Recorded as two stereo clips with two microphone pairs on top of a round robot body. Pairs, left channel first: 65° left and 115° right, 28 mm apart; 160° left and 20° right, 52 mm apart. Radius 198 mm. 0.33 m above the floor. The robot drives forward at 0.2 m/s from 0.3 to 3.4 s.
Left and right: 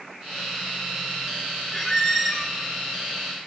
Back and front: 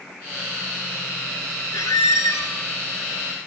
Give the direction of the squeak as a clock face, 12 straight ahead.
7 o'clock.